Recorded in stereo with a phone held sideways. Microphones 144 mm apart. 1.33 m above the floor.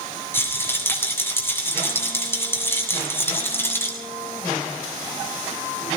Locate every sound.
0.3 s a rattle: 15° left (ahead or behind), 7.5 m